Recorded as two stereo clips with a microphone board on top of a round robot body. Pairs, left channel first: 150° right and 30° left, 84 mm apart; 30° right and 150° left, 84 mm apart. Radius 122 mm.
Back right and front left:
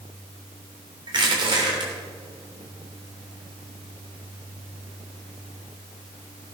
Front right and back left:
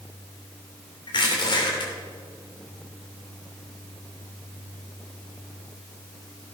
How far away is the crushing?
About 3 m.